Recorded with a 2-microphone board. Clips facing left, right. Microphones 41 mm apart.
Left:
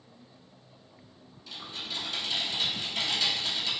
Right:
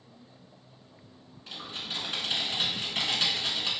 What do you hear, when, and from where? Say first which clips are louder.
1.5 s typing on a keyboard: right 1 dB; 45° right (ahead or behind), 0.9 m